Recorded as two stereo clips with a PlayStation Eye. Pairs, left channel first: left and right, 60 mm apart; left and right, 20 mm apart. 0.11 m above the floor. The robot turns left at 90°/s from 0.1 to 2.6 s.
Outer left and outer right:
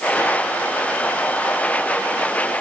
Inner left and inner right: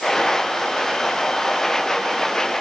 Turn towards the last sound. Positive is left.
No sound to turn to.